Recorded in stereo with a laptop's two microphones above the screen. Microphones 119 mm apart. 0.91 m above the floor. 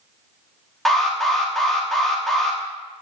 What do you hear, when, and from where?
0.8 s an alarm: centre (ahead or behind), 1.0 m